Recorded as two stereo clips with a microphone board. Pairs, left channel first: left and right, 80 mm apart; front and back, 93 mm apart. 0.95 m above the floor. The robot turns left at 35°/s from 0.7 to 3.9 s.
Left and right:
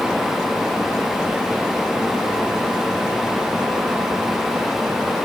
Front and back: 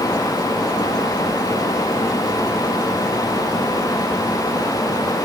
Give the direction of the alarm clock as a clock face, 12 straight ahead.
No alarm clock in this recording.